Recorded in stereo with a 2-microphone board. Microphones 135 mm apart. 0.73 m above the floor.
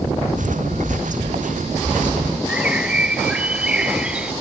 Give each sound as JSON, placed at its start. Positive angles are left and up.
{"t": 0.4, "sound": "footsteps", "side_deg": -85}
{"t": 2.5, "sound": "a bird", "side_deg": -10}